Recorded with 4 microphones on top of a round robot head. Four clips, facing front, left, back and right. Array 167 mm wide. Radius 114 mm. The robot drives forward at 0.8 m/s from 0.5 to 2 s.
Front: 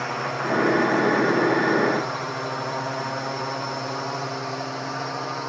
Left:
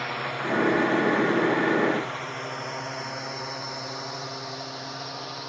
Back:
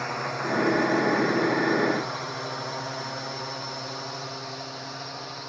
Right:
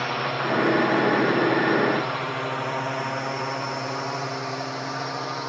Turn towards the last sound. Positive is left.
turn(degrees=-35)